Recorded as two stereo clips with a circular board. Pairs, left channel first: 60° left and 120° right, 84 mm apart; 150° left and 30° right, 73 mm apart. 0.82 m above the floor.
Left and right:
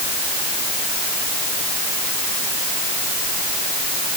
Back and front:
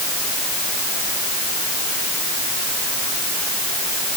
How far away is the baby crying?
I don't hear a baby crying.